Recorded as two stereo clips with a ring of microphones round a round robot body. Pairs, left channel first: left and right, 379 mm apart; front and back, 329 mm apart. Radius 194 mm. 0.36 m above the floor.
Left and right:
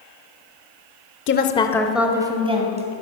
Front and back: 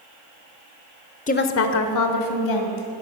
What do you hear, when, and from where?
1.3 s a woman speaking: 55° left, 1.0 m; by 2.9 s 20° right, 2.5 m